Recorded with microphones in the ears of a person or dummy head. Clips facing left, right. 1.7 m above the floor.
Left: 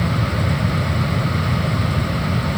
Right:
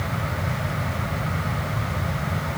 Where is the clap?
No clap in this recording.